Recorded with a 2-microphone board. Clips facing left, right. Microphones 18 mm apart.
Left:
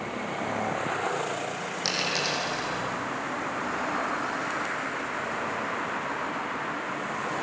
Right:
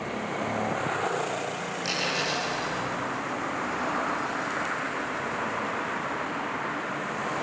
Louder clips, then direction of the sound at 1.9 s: Left 1 dB; 35° left (ahead or behind).